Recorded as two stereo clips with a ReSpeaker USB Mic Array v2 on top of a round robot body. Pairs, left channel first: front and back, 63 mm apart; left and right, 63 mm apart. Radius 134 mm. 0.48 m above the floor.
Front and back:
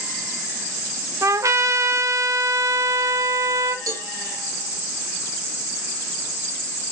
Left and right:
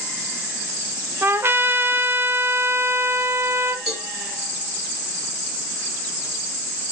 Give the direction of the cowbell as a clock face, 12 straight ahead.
6 o'clock.